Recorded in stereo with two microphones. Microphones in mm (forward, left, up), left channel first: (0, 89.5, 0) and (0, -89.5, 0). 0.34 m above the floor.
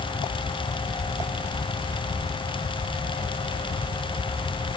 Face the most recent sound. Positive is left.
No sound to turn to.